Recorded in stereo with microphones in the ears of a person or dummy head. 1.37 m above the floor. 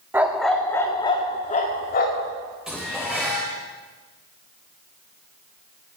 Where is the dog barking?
10° right (ahead or behind), 1.2 m; by 2.3 s 55° left (ahead or behind), 1.8 m.